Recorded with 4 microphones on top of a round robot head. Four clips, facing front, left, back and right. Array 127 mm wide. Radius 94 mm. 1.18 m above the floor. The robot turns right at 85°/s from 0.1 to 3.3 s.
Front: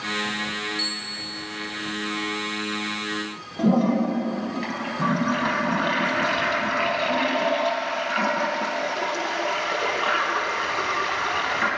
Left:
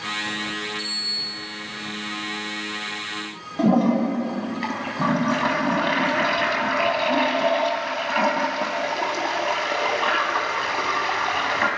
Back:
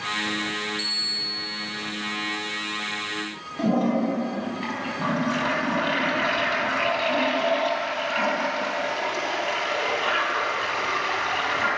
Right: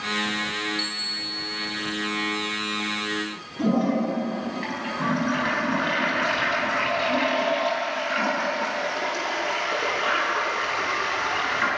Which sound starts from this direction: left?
A toilet flushing, at 3.6 s.